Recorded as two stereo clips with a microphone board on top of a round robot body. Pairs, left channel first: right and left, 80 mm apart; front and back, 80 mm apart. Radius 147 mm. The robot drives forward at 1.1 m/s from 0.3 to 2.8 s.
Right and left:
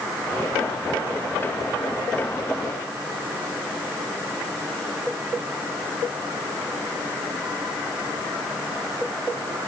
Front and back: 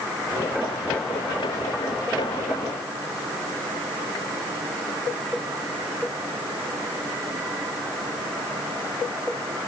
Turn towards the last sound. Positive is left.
No sound to turn to.